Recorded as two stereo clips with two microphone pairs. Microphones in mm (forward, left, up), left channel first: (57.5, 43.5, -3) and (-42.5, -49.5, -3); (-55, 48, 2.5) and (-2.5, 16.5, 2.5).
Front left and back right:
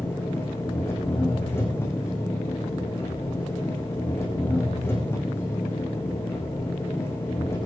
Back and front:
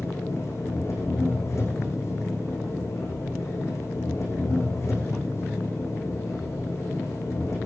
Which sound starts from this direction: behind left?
An engine running, at 0.0 s.